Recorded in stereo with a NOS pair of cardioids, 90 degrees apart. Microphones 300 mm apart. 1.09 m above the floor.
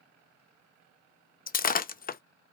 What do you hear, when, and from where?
1.5 s breaking glass: 30° left, 0.6 m